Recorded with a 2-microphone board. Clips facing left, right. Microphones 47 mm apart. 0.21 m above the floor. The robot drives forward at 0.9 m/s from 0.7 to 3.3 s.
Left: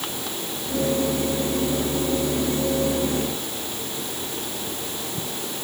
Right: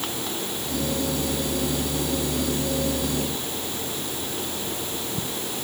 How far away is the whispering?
No whispering in this recording.